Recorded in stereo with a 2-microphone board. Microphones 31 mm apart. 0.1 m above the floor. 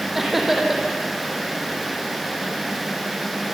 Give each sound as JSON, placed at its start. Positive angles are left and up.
{"t": 0.1, "sound": "laughter", "side_deg": -10, "distance_m": 5.0}